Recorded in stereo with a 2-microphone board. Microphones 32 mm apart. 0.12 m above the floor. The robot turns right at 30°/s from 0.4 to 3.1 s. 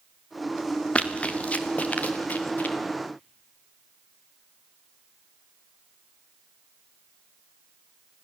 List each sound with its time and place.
0.9 s running footsteps: 40° left (ahead or behind), 2 m; by 2.8 s 60° left (ahead or behind), 3.5 m